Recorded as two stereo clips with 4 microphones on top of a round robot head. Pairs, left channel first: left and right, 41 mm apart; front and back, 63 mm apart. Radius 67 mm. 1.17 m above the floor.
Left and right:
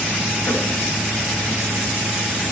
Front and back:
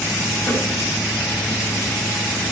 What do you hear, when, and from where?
0.5 s a snare drum: 60° left, 9 m